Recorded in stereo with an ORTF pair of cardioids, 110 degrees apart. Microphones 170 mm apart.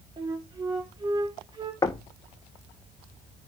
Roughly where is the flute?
Ahead right.